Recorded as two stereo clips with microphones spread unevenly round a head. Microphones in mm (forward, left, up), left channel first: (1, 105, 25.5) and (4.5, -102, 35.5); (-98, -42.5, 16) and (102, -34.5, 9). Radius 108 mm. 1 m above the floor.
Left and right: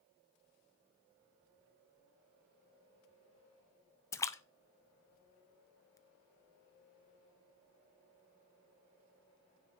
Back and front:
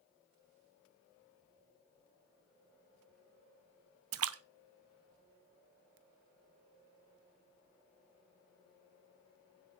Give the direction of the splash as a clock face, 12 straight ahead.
12 o'clock.